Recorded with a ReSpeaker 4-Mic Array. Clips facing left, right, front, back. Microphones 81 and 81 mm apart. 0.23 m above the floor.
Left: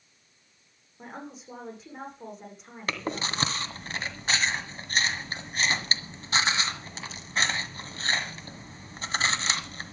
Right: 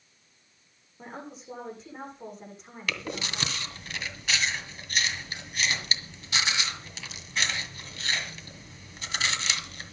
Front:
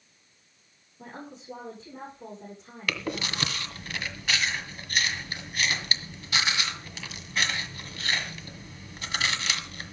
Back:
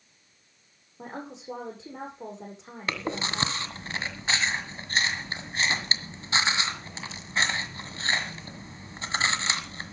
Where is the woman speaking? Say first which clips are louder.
Even, back 4 dB; straight behind, 9.5 m.